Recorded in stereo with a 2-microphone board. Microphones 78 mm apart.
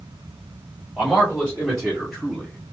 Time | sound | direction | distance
1.0 | a man speaking | centre (ahead or behind) | 1.4 m